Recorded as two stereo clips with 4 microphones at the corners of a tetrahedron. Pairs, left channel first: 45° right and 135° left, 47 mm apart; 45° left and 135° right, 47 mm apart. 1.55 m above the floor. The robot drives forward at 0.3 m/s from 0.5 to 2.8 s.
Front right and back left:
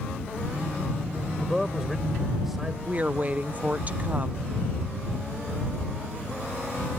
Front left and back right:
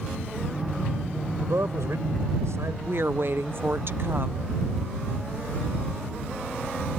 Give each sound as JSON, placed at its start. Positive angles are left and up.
{"t": 1.4, "sound": "a man speaking", "azimuth_deg": -140}
{"t": 2.9, "sound": "a woman speaking", "azimuth_deg": -170}